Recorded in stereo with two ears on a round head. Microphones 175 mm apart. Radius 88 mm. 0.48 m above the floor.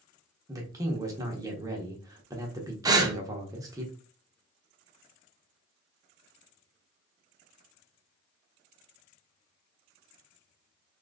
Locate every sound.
0.5 s a man speaking: 20° right (ahead or behind), 1.0 m
2.9 s breathing: 20° right (ahead or behind), 0.6 m